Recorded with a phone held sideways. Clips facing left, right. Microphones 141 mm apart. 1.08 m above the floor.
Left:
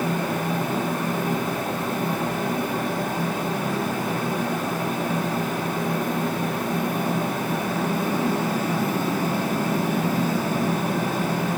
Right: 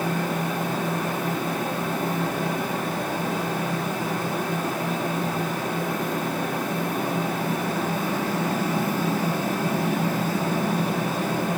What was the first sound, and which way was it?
A fan, 50° left (ahead or behind).